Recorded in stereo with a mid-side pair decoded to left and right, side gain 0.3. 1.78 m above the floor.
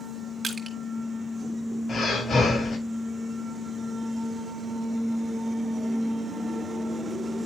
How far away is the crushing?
About 1.7 m.